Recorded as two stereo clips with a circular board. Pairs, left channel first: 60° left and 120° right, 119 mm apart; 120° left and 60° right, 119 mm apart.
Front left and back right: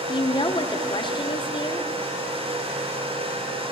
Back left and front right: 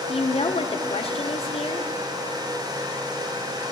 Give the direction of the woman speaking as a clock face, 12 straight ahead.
9 o'clock.